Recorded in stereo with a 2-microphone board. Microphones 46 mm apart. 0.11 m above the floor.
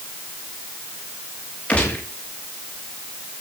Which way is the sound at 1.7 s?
30° left (ahead or behind).